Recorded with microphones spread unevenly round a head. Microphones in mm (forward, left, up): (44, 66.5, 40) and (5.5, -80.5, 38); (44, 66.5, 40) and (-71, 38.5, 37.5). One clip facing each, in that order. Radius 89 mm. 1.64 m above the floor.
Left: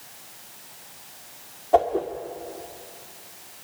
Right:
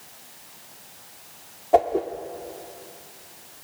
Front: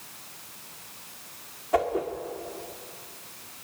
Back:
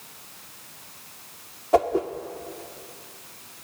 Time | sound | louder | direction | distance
1.7 | a whoosh | right 1 dB, back 4 dB | 175° right | 1.3 m